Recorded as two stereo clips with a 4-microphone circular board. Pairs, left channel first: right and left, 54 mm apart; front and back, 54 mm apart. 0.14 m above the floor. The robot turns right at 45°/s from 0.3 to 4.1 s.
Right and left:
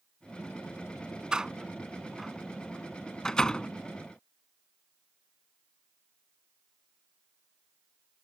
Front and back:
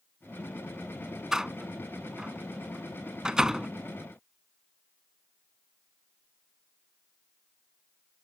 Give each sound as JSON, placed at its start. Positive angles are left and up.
{"t": 1.3, "sound": "a door slam", "azimuth_deg": 125}